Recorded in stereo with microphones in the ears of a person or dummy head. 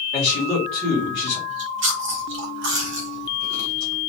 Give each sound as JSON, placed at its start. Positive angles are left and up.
{"t": 0.1, "sound": "a man speaking", "side_deg": 0, "distance_m": 2.5}
{"t": 1.5, "sound": "chewing", "side_deg": -75, "distance_m": 1.5}